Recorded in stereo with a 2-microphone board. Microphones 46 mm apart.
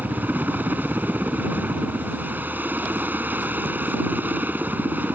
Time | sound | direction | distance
0.0 | a helicopter | 45° right (ahead or behind) | ?